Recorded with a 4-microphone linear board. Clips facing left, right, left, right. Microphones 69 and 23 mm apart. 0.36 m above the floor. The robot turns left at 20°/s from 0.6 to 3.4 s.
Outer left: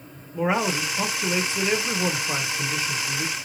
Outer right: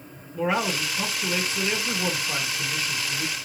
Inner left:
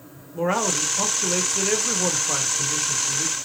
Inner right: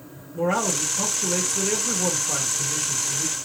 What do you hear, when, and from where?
0.3 s a man speaking: 20° left (ahead or behind), 0.8 m